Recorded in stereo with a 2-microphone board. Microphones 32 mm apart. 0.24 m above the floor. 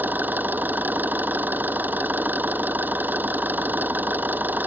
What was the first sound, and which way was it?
An engine running, 75° right (ahead or behind).